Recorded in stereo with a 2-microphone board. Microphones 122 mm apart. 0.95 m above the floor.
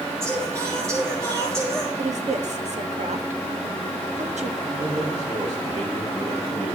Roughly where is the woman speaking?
Right.